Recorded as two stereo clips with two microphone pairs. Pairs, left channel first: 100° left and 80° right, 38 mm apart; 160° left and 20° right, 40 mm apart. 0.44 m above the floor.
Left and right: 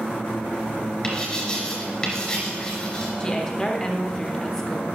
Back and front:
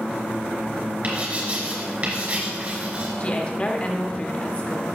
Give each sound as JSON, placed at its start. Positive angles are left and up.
{"t": 1.0, "sound": "writing", "azimuth_deg": 30, "distance_m": 3.0}
{"t": 3.2, "sound": "a woman speaking", "azimuth_deg": 160, "distance_m": 1.1}